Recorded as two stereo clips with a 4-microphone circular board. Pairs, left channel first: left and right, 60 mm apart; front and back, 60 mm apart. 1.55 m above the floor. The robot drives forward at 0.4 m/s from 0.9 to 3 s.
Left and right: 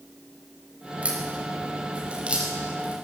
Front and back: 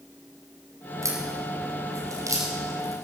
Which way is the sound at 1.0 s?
160° right.